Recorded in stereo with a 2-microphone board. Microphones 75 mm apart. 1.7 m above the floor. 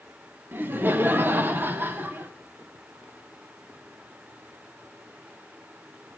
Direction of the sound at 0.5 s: 30° right (ahead or behind).